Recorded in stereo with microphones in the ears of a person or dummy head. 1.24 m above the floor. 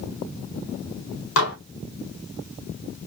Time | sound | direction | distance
1.4 | dishes clattering | 75° left (ahead or behind) | 2 m